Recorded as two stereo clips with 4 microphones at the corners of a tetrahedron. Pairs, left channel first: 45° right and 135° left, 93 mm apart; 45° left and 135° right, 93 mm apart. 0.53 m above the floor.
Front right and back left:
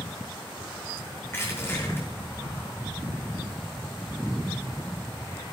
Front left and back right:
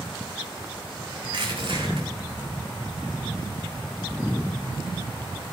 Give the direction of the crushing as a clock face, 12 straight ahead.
4 o'clock.